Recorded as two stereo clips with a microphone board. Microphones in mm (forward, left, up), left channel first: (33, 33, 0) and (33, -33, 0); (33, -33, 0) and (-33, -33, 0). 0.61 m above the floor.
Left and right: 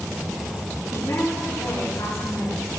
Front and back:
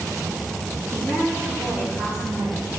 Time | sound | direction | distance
0.9 | a woman speaking | 110° left | 5.5 m